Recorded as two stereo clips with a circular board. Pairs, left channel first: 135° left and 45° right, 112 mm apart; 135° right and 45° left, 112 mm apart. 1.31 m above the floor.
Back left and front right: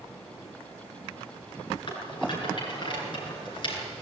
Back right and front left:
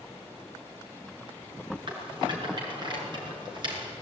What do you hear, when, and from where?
1.9 s a rattle: 90° left, 7 m